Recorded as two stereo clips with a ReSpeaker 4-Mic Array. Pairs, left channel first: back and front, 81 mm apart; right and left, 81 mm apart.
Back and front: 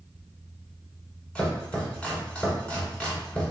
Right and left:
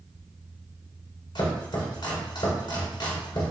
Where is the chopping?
105° right, 1.5 m.